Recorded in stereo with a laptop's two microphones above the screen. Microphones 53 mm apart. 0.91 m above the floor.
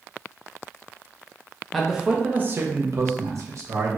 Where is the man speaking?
Centre (ahead or behind), 0.5 m; by 4.0 s 70° right (ahead or behind), 1.1 m.